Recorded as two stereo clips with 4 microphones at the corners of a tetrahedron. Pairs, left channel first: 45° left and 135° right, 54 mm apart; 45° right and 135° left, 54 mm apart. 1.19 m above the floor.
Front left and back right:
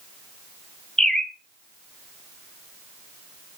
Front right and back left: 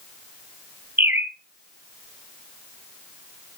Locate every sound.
1.0 s a bird: 120° left, 0.6 m